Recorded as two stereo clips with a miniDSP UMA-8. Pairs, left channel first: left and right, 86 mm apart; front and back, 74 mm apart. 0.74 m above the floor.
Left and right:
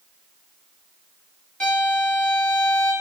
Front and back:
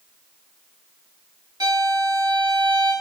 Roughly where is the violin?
Behind.